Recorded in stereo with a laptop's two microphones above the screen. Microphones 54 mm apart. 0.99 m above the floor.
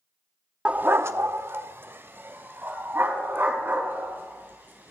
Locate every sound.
0.7 s a dog barking: 20° right (ahead or behind), 0.5 m; by 4.9 s 40° right (ahead or behind), 6 m